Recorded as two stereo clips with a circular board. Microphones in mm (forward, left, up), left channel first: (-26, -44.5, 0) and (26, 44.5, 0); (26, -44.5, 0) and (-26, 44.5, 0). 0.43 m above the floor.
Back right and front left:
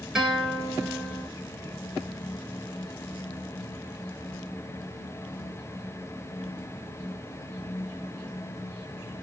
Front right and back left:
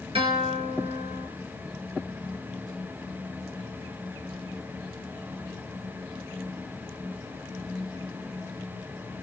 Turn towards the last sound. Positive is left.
turn(degrees=145)